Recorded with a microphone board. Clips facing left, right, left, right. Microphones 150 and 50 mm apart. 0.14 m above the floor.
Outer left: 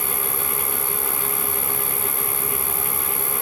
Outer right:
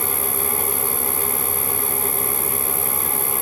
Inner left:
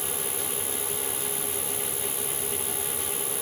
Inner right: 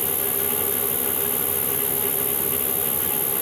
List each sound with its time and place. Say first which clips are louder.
0.0 s an insect: outer right 3 dB, inner right 5 dB; 75° right (ahead or behind)